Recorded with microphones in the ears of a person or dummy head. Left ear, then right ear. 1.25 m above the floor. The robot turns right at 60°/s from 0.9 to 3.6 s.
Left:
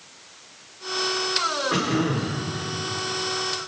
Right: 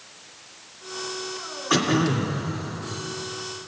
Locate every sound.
1.7 s throat clearing: 90° right, 2.0 m; by 2.4 s 50° right, 2.0 m